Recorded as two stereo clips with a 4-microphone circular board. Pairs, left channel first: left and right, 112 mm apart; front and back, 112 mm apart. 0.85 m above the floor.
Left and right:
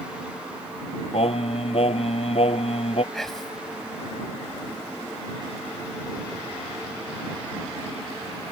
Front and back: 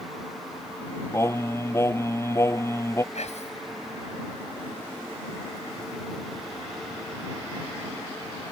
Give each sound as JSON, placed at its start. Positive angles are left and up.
{"t": 1.1, "sound": "singing", "azimuth_deg": 65}
{"t": 3.1, "sound": "whispering", "azimuth_deg": 5}